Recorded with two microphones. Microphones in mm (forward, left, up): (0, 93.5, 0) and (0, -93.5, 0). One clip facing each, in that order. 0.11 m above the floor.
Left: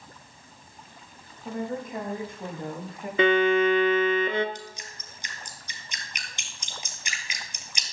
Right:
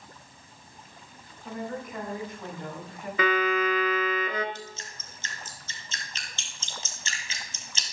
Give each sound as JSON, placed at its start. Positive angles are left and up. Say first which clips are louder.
{"t": 1.4, "sound": "a woman speaking", "louder": "left 3 dB", "side_deg": 25, "distance_m": 7.0}
{"t": 3.2, "sound": "a violin", "louder": "left 5 dB", "side_deg": 30, "distance_m": 1.1}
{"t": 4.5, "sound": "dripping", "louder": "even", "side_deg": 15, "distance_m": 1.6}